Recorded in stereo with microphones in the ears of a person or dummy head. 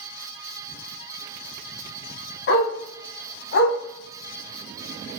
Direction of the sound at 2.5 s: 60° left (ahead or behind).